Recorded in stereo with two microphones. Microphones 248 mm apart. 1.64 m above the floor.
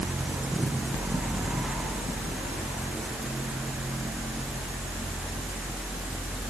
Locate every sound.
Only background noise.